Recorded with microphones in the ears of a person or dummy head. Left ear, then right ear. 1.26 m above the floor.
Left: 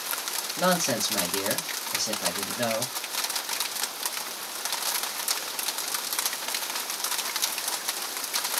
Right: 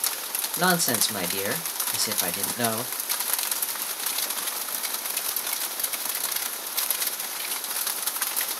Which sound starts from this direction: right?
A man speaking, at 0.6 s.